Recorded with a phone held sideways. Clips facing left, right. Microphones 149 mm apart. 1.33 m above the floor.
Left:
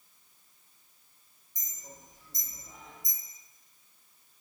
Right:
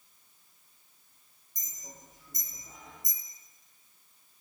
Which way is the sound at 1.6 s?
50° right (ahead or behind).